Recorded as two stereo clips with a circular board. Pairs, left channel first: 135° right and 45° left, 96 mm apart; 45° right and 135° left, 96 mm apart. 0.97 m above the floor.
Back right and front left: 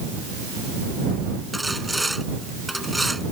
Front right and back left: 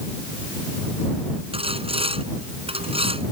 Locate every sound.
1.5 s sawing: 135° left